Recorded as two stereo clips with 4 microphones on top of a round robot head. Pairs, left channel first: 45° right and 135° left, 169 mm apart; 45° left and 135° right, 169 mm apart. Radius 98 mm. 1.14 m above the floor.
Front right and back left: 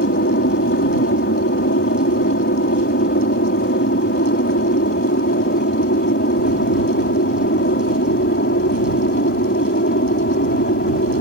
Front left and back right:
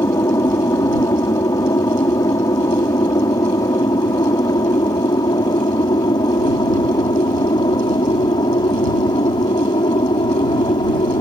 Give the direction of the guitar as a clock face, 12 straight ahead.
No guitar in this recording.